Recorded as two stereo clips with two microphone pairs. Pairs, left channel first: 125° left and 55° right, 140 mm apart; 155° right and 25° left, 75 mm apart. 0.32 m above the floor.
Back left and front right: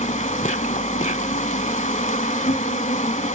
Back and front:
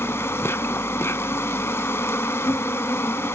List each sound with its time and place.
0.0 s an insect: 150° left, 1.2 m